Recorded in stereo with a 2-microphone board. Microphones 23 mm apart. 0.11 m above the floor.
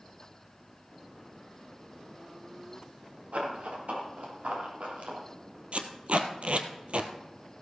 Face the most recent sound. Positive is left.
turn(degrees=-65)  # may be behind; listen again after turning